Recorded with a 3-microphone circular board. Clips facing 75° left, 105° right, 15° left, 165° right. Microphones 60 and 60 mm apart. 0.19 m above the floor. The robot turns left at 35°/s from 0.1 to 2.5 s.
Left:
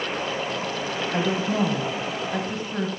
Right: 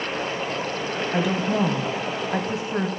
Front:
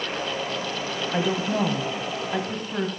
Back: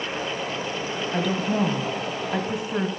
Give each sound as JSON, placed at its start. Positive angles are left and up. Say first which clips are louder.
{"t": 1.1, "sound": "a woman speaking", "louder": "right 1 dB, even", "azimuth_deg": -50, "distance_m": 1.4}